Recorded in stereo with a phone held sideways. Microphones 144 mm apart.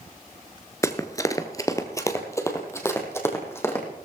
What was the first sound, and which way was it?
Running footsteps, 20° left (ahead or behind).